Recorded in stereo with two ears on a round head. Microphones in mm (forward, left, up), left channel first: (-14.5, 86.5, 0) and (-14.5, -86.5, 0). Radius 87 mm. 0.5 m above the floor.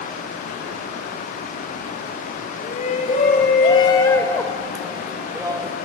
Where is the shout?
45° left (ahead or behind), 2 m; by 5.8 s 20° right (ahead or behind), 1.6 m.